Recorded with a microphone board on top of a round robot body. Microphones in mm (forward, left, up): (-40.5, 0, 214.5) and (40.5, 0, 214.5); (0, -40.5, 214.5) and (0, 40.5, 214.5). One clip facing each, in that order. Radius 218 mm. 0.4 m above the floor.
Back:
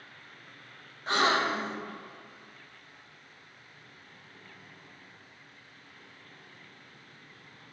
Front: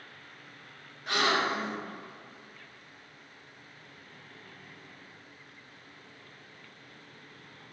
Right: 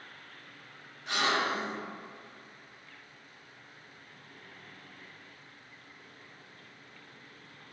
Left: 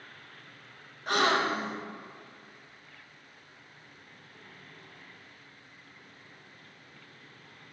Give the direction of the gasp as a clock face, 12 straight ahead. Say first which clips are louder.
Back 2 dB, left 4 dB; 8 o'clock.